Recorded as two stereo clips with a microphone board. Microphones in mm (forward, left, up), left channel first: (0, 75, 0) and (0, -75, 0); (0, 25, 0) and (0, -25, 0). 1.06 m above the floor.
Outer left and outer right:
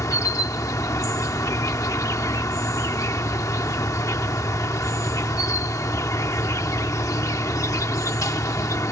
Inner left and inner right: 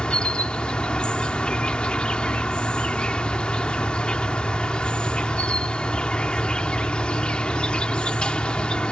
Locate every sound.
0.0 s an insect: 20° left (ahead or behind)